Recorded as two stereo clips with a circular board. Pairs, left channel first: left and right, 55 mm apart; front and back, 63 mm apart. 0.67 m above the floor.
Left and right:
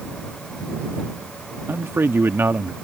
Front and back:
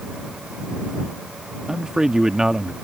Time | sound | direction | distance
1.7 | a man speaking | 105° right | ?